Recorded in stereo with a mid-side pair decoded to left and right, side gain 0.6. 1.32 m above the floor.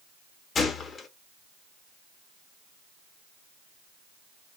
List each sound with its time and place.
0.6 s a gunshot: 35° left, 0.8 m